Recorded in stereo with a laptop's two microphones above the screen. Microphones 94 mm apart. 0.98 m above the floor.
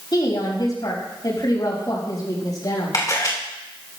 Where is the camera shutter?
40° left (ahead or behind), 2.5 m.